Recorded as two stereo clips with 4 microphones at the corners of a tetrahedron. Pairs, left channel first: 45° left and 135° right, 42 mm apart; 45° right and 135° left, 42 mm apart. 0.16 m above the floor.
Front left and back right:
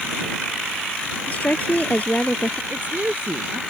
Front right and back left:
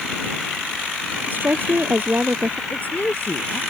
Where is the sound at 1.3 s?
95° left.